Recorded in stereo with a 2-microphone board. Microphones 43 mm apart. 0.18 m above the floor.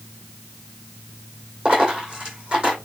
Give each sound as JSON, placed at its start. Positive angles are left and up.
{"t": 1.6, "sound": "a dropped coin", "side_deg": -20, "distance_m": 2.5}